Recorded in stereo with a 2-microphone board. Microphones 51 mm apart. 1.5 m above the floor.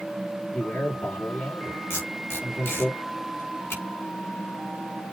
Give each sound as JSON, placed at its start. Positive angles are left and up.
{"t": 0.5, "sound": "a man speaking", "side_deg": 40, "distance_m": 4.0}
{"t": 1.9, "sound": "tape being pulled", "side_deg": 55, "distance_m": 4.0}